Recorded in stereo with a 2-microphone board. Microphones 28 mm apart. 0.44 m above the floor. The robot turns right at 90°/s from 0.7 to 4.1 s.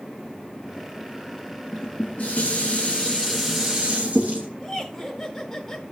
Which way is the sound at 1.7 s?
25° left.